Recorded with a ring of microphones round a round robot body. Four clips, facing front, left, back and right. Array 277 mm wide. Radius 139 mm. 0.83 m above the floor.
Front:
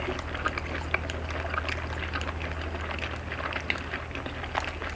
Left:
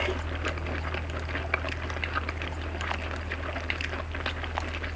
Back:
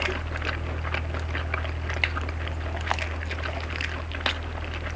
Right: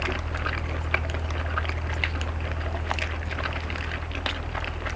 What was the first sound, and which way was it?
Only background noise.